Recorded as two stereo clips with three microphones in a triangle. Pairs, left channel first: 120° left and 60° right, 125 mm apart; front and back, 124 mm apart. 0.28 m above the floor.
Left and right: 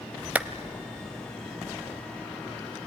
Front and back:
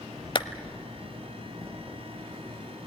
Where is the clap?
15° left, 1.0 m.